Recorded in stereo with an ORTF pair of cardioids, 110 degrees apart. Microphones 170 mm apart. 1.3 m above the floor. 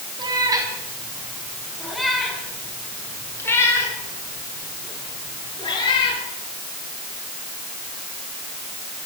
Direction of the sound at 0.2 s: 25° right.